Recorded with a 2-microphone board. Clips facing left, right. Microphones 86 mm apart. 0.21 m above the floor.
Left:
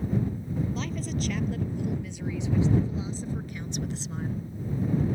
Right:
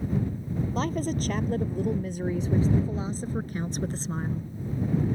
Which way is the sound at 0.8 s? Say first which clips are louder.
Right 4 dB; 45° right (ahead or behind).